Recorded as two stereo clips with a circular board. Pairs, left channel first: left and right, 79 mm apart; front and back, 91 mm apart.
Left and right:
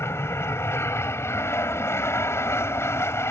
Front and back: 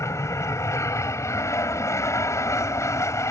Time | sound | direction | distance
0.0 | an aircraft | 45° left | ?